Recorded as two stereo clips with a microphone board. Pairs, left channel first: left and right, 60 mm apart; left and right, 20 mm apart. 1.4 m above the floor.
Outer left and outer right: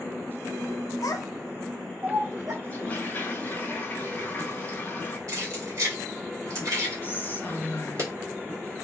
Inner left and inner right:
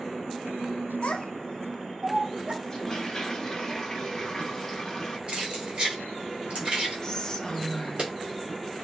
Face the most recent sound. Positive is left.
turn(degrees=30)  # may be behind; listen again after turning